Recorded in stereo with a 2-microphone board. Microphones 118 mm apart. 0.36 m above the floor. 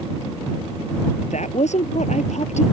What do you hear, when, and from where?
1.2 s a woman speaking: 75° left (ahead or behind)